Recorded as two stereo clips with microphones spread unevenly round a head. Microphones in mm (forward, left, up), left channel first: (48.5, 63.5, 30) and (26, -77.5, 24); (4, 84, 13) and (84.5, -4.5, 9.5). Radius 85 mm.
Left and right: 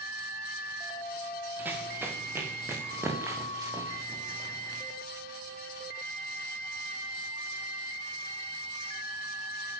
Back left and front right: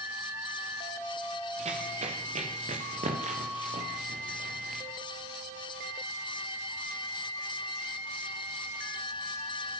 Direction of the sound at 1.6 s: 20° right.